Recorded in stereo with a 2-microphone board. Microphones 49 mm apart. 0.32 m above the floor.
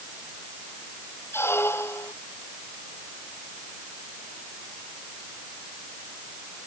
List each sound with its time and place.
1.3 s a squeak: 50° left (ahead or behind)